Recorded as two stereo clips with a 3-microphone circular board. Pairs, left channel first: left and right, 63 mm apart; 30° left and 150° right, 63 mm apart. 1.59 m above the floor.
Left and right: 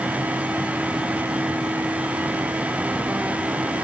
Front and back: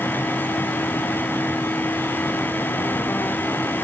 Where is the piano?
I don't hear a piano.